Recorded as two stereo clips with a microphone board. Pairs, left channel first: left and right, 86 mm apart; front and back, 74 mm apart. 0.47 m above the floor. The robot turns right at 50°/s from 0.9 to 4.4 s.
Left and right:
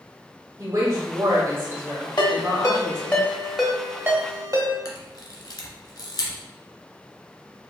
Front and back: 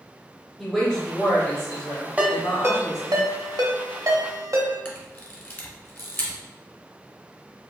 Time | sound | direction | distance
0.6 | a woman speaking | 95° right | 0.8 m
2.2 | a ringtone | 115° left | 0.8 m
4.8 | a camera shutter | 60° left | 1.0 m